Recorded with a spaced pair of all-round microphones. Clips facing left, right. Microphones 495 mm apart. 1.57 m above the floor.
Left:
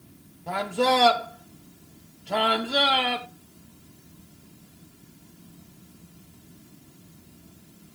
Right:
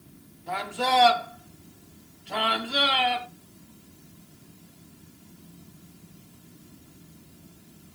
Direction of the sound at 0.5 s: 65° left (ahead or behind).